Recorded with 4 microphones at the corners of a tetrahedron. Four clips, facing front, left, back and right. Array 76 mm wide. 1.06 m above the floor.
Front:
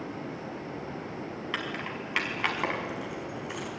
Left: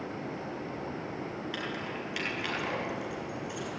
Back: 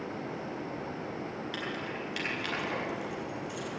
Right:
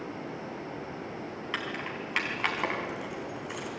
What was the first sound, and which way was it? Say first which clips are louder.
Keys jangling: right 5 dB, front 4 dB; 40° right.